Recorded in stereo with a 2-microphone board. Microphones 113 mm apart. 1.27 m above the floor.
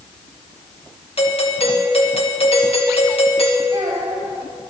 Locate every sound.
1.2 s a doorbell: 60° left (ahead or behind), 1.9 m
3.7 s a child speaking: 40° right (ahead or behind), 6 m